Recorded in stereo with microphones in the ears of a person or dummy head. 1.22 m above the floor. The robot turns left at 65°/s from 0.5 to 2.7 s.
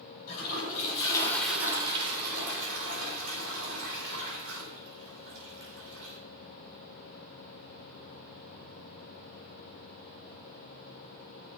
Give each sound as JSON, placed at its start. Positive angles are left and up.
{"t": 0.3, "sound": "a toilet flushing", "azimuth_deg": 70, "distance_m": 4.0}